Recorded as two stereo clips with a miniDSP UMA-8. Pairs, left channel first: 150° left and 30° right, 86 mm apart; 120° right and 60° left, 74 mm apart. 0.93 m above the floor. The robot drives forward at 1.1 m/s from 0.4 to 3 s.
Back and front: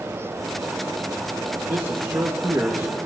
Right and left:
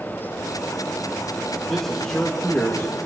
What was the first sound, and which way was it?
A man speaking, 30° right.